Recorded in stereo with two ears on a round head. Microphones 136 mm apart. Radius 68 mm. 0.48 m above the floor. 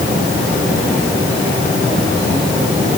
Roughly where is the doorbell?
I don't hear a doorbell.